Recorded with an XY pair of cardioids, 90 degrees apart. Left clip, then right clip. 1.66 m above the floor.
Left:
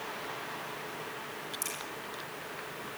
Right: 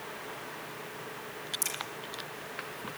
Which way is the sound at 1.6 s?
30° right.